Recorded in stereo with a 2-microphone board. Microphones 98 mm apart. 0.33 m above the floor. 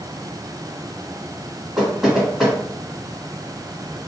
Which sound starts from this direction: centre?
Knocking, at 1.8 s.